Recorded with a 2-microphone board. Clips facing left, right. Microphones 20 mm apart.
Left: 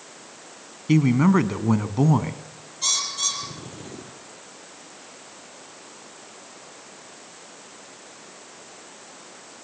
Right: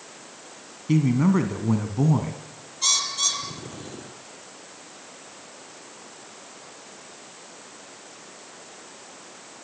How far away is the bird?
About 3.5 m.